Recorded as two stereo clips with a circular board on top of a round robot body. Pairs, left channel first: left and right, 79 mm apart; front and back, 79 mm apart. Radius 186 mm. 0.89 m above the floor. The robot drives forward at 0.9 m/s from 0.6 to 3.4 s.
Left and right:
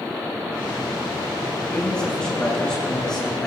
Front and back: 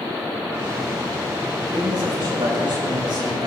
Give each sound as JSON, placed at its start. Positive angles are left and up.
{"t": 1.7, "sound": "a man speaking", "azimuth_deg": 170, "distance_m": 5.5}